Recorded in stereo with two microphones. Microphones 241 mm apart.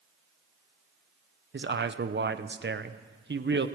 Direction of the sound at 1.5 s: 50° right (ahead or behind).